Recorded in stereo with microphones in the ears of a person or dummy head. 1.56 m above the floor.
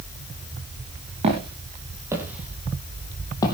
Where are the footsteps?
30° right (ahead or behind), 3 m; by 3.5 s 20° left (ahead or behind), 2.5 m.